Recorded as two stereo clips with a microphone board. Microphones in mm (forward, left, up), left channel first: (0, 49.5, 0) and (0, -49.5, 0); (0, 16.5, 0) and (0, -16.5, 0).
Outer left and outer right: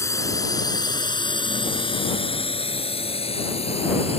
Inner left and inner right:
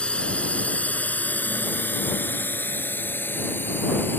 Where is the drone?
30° left (ahead or behind); by 4.2 s 85° left.